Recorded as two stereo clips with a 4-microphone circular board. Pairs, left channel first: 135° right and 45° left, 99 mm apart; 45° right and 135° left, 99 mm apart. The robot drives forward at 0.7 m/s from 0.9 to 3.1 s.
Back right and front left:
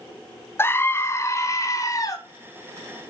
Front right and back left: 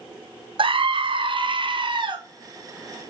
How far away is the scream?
About 0.7 m.